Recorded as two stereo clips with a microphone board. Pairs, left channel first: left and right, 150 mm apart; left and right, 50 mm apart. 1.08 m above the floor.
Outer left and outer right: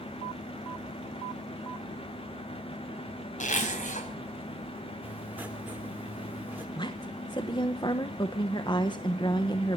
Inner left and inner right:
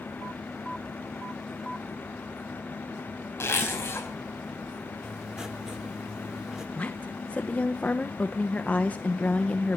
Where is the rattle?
I don't hear a rattle.